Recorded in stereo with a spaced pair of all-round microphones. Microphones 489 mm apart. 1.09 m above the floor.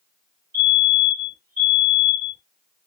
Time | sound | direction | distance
0.5 | a fire alarm | 30° right (ahead or behind) | 1.9 m